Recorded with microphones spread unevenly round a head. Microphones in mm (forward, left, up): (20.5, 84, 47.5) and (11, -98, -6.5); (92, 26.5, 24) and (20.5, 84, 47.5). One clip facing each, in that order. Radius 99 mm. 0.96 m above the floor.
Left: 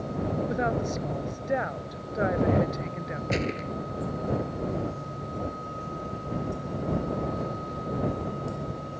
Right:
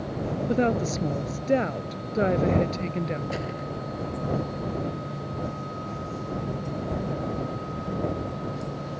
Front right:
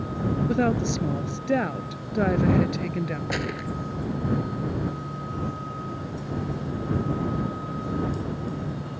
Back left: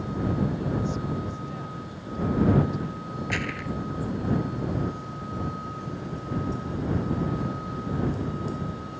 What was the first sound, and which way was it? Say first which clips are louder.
A woman speaking: right 4 dB, front right 5 dB; 45° right.